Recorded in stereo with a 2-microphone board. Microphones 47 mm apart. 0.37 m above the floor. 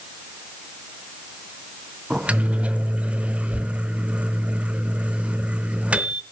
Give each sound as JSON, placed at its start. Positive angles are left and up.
{"t": 2.1, "sound": "a microwave", "side_deg": -30, "distance_m": 0.7}